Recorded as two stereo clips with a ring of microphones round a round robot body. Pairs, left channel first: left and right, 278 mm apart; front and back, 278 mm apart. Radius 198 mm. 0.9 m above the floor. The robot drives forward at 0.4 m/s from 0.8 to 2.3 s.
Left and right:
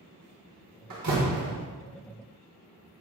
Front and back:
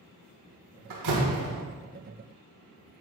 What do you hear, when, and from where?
0.9 s a door slam: 140° right, 1.5 m; by 1.6 s 145° right, 1.7 m